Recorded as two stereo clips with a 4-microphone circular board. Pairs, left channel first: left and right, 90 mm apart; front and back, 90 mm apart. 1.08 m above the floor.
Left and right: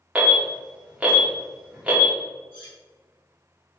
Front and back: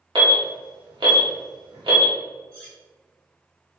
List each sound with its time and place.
0.1 s an alarm: 165° right, 1.5 m
2.5 s cutlery clinking: 75° left, 2.0 m